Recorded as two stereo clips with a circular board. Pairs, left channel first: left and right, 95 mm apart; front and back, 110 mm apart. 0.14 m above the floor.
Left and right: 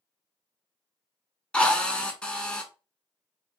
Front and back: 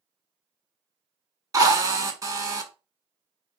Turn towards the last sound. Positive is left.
turn(degrees=160)